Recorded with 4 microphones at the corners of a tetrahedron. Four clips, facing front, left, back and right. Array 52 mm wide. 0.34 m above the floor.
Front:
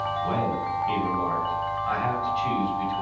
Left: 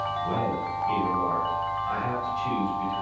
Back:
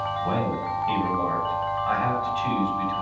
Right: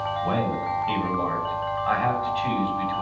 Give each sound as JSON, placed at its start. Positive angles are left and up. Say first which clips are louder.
{"t": 0.2, "sound": "a man speaking", "louder": "right 2 dB, even", "azimuth_deg": -100, "distance_m": 2.5}